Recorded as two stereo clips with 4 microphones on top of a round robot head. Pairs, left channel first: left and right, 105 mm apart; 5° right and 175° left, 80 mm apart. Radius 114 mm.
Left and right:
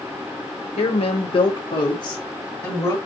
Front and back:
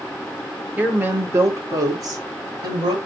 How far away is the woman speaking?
About 1.4 m.